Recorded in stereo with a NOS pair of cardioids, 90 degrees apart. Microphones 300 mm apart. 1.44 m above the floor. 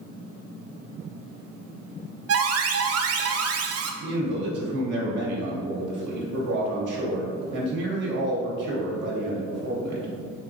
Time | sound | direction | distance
2.3 | an alarm | 60° right | 0.6 m
4.0 | a man speaking | 70° right | 1.2 m